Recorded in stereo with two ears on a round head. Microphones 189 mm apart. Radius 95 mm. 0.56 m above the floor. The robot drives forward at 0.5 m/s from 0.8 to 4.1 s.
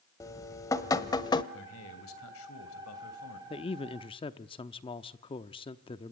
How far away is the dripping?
About 1.2 m.